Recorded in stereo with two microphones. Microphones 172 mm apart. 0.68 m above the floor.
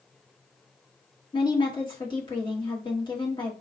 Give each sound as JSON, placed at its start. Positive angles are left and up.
{"t": 1.3, "sound": "a woman speaking", "side_deg": 30, "distance_m": 1.4}